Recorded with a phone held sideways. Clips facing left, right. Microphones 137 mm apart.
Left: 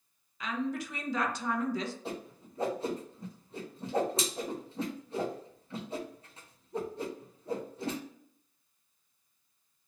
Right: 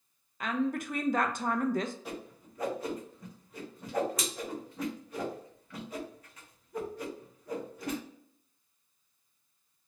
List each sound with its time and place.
0.4 s a woman speaking: 50° right (ahead or behind), 0.5 m
2.0 s a whoosh: 30° left (ahead or behind), 0.7 m